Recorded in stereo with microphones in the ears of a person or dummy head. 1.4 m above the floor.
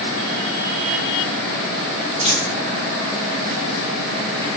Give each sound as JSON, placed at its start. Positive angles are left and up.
{"t": 2.2, "sound": "a dropped coin", "side_deg": 20, "distance_m": 0.7}